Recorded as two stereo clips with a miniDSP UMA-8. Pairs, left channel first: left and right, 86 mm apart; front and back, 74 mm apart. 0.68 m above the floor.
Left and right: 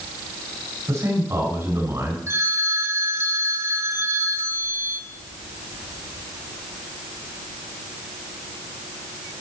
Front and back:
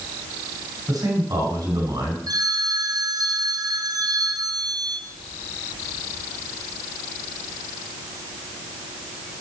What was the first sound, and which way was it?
A man speaking, 145° right.